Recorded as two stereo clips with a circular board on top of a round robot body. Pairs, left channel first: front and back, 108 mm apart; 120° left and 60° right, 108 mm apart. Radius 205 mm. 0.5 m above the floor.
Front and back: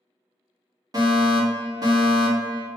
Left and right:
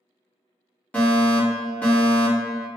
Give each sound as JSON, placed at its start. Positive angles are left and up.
{"t": 0.9, "sound": "a fire alarm", "azimuth_deg": -170, "distance_m": 2.0}